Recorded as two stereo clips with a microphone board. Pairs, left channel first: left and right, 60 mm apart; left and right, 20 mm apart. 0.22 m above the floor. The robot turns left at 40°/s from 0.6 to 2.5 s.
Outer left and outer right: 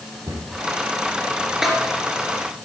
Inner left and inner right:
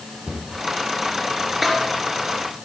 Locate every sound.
0.3 s a cupboard door: 60° right (ahead or behind), 3.5 m
1.6 s a snare drum: 10° right (ahead or behind), 2.5 m; by 1.8 s centre (ahead or behind), 2.5 m